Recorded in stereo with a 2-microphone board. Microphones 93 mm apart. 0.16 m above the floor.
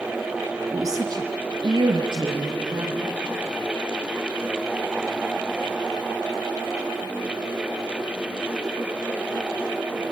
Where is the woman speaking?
35° right (ahead or behind), 1.4 m; by 3.2 s 60° right (ahead or behind), 4.5 m.